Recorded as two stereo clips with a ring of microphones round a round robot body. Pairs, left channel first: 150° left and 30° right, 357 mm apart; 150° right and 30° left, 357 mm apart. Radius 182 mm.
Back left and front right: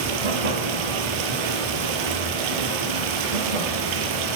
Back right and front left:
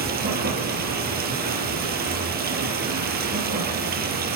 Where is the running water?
35° right, 5 m.